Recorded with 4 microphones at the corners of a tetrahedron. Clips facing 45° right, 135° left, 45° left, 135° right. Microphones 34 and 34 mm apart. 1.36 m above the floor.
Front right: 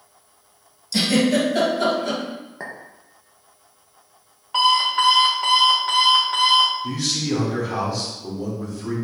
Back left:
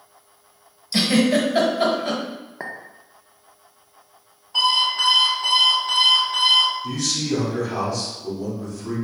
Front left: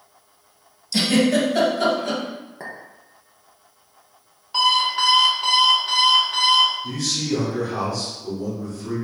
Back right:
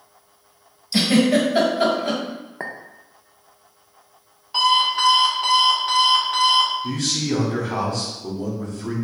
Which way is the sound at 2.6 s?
155° right.